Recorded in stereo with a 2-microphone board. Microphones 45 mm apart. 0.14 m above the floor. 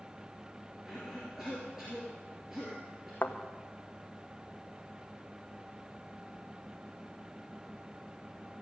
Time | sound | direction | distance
0.8 | a cough | 10° right (ahead or behind) | 3.5 m
3.2 | a thud | 45° left (ahead or behind) | 1.4 m